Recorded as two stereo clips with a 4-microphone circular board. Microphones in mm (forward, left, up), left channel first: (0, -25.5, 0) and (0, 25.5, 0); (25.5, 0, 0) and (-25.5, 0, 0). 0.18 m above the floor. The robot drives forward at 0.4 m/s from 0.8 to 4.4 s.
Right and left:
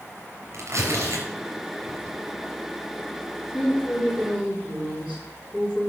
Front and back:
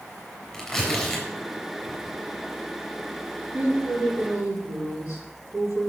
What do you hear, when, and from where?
0.5 s tearing paper: 85° left, 4 m; by 2.2 s 90° left, 4 m
3.5 s a woman speaking: 150° right, 5.5 m; by 5.9 s 155° right, 5.5 m